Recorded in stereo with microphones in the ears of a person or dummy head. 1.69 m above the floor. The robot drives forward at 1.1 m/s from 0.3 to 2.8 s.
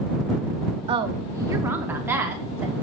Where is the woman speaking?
30° right (ahead or behind), 1.0 m; by 2.7 s 10° right (ahead or behind), 3 m.